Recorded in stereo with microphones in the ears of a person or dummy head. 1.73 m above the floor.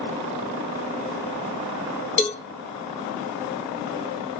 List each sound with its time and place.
2.2 s a cowbell: 35° left (ahead or behind), 0.9 m